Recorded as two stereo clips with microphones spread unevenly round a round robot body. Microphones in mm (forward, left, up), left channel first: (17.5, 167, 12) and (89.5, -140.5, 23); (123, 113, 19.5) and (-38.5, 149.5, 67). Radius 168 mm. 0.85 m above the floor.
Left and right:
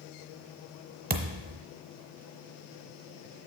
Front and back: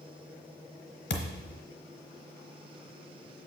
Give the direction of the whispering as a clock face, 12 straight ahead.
No whispering in this recording.